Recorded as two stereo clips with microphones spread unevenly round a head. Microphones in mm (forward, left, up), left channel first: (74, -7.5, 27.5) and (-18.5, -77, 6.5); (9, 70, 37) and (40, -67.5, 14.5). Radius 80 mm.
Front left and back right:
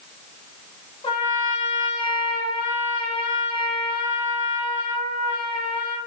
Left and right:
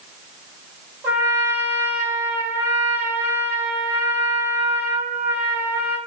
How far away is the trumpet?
About 1.3 m.